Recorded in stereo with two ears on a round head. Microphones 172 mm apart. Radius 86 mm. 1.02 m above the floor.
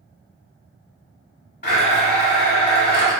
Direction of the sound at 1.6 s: 50° left (ahead or behind).